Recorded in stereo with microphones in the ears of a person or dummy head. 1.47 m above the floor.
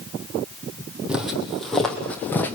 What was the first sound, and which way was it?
Footsteps, 10° right (ahead or behind).